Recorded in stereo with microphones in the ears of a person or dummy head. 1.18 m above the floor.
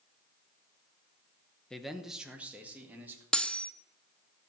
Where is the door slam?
No door slam in this recording.